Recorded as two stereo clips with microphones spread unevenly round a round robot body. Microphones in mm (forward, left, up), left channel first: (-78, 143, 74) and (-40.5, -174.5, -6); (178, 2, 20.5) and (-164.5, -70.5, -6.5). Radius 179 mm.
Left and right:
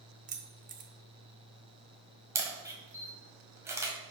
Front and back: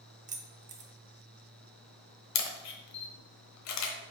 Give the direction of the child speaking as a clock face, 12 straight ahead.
No child speaking in this recording.